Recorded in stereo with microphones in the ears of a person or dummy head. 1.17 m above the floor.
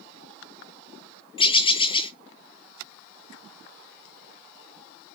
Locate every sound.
1.4 s a bird: 25° left (ahead or behind), 0.5 m